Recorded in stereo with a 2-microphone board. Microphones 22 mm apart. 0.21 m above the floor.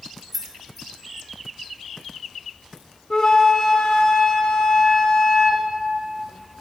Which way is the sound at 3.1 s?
40° left (ahead or behind).